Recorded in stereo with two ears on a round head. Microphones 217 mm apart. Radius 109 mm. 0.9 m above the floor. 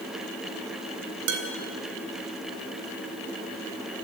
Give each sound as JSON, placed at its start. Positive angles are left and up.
{"t": 1.3, "sound": "dishes clattering", "side_deg": -85, "distance_m": 3.5}